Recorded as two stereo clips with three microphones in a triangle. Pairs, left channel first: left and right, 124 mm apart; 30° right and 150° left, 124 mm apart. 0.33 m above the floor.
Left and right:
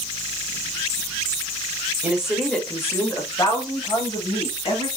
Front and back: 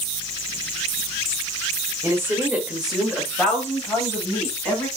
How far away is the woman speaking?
About 1.0 m.